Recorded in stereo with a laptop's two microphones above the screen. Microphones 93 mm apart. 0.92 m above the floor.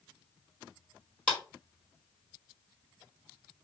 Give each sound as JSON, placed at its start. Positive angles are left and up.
{"t": 1.3, "sound": "a clap", "side_deg": 10, "distance_m": 1.9}